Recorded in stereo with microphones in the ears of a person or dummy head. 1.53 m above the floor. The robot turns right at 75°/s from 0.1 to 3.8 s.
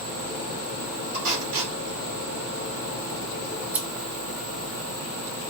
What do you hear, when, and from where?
1.1 s tape being pulled: 60° right (ahead or behind), 2.5 m
3.6 s scissors: 15° right (ahead or behind), 0.7 m; by 3.9 s 5° right (ahead or behind), 0.7 m